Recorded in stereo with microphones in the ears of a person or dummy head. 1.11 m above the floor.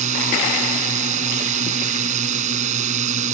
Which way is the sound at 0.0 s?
40° right (ahead or behind).